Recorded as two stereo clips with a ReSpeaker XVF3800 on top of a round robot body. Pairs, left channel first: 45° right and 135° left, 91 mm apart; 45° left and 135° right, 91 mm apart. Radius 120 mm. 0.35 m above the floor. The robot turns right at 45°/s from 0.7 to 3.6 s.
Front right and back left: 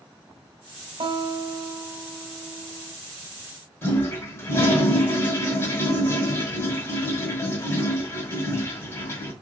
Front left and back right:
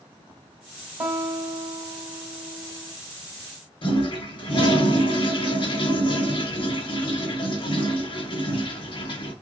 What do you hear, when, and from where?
1.0 s a guitar: 160° left, 1.3 m; by 2.9 s 115° right, 1.3 m
3.8 s a toilet flushing: 20° left, 1.8 m